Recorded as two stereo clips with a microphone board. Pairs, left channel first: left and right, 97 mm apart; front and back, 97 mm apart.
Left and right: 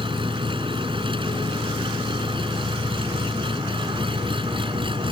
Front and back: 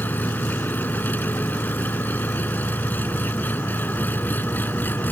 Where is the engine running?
70° right.